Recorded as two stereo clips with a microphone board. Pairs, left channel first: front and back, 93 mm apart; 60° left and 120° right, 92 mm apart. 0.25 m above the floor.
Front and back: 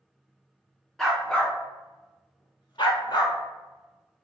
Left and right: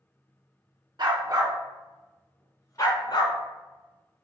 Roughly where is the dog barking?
Right.